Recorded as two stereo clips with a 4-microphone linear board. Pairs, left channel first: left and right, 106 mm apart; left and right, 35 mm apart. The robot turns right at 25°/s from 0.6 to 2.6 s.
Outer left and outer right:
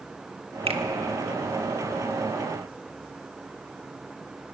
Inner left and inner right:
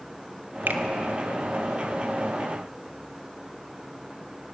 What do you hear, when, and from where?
0.7 s a finger snap: 75° right (ahead or behind), 1.6 m